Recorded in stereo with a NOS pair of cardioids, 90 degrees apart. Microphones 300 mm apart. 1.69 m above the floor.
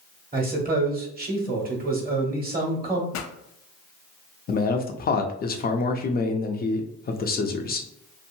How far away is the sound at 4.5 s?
About 0.6 m.